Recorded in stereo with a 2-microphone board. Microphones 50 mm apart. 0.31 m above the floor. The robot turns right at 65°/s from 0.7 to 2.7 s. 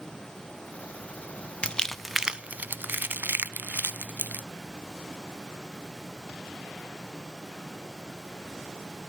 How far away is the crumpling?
About 0.6 m.